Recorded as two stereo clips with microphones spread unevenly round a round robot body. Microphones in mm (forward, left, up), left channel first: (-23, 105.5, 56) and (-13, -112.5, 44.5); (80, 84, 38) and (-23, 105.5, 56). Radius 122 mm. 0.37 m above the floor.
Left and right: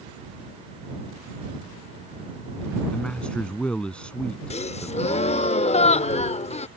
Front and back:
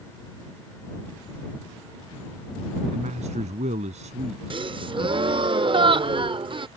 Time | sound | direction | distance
2.9 | a man speaking | straight behind | ?
4.5 | a gasp | 145° left | ?